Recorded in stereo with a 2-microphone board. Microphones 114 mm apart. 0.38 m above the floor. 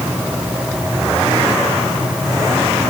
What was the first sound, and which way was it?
Only background noise.